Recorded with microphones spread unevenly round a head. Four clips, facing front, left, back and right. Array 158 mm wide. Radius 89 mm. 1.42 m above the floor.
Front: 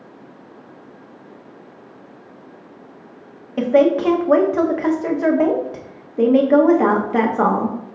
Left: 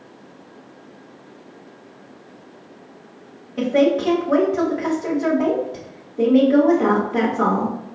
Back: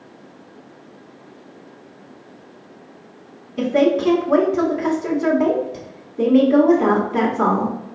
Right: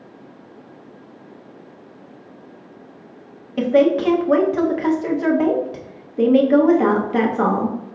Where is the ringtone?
No ringtone in this recording.